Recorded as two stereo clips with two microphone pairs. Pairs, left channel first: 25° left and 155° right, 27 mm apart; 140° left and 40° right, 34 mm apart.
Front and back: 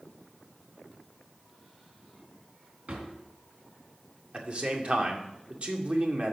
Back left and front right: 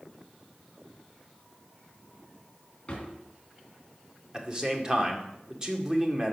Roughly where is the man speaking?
Right.